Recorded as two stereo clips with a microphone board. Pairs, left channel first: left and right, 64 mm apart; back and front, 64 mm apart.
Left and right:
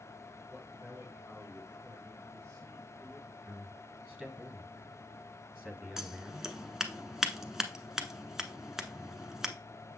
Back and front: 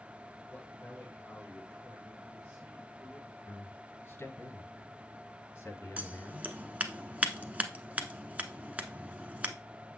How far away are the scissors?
About 0.8 m.